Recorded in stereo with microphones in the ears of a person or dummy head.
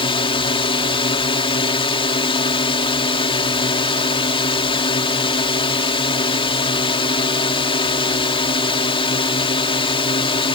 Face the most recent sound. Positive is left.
turn(degrees=30)  # may be behind; listen again after turning